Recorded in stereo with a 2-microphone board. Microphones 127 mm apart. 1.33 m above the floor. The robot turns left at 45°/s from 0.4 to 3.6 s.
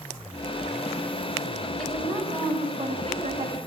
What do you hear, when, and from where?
1.8 s a woman speaking: 5° left, 8.5 m; by 3.6 s 80° right, 8.5 m